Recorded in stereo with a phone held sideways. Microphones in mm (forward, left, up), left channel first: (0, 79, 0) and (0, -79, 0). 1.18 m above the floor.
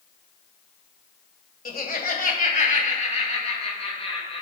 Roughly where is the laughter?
Left.